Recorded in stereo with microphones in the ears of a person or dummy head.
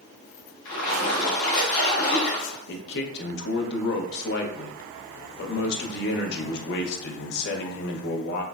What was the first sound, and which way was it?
A splash, 60° left (ahead or behind).